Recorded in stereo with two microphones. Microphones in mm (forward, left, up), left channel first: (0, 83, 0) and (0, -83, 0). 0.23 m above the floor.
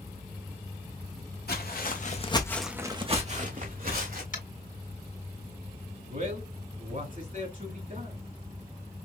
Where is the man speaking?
55° right (ahead or behind), 2.5 m.